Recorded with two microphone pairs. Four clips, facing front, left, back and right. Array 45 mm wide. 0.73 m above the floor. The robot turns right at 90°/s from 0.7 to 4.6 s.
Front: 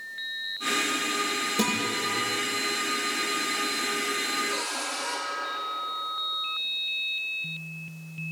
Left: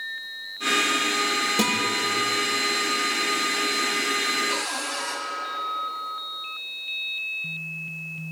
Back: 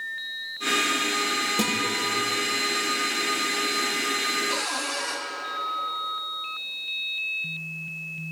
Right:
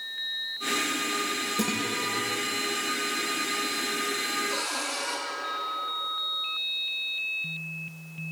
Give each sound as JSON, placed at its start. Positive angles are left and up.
{"t": 1.6, "sound": "a guitar", "azimuth_deg": 100, "distance_m": 7.5}
{"t": 4.5, "sound": "a cupboard door", "azimuth_deg": 125, "distance_m": 5.5}